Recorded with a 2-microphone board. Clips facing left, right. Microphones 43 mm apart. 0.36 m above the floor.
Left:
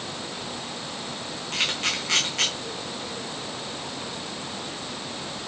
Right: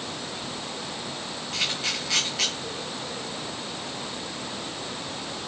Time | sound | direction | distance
1.5 | a camera shutter | 75° left (ahead or behind) | 5 m